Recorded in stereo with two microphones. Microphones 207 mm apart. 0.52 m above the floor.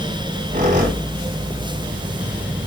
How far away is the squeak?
About 2.5 m.